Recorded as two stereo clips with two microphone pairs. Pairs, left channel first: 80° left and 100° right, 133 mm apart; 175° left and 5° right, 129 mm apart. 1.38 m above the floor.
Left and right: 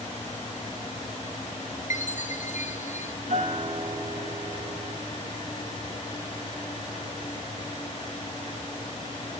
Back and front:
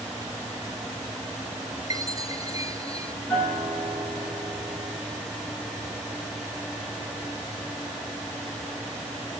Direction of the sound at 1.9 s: 60° left.